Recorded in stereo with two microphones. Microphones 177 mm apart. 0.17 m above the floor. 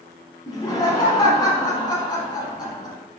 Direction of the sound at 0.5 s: 25° left (ahead or behind).